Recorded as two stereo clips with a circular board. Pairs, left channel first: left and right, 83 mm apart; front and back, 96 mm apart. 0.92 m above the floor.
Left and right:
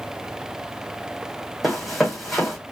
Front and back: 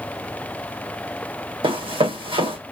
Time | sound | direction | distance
1.6 | running footsteps | straight behind | 2 m